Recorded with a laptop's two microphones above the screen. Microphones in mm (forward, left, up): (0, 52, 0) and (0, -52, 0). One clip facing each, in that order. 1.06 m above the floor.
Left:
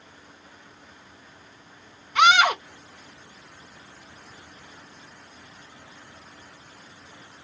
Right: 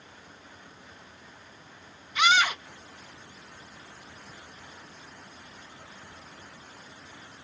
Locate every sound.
2.1 s a scream: 65° left (ahead or behind)